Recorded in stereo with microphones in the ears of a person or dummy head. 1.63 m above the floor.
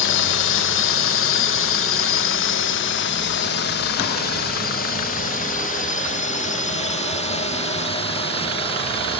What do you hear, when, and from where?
0.0 s a drone: 60° left (ahead or behind); by 9.2 s 25° left (ahead or behind)